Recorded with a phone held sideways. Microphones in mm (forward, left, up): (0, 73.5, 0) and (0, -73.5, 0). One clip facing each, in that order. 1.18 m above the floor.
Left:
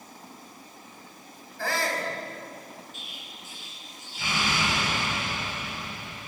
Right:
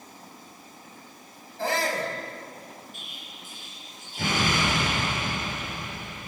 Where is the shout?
20° right (ahead or behind), 6 m.